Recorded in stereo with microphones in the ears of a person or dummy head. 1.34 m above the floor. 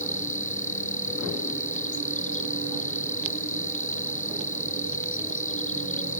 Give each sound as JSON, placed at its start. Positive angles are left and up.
{"t": 0.0, "sound": "an insect", "side_deg": 40}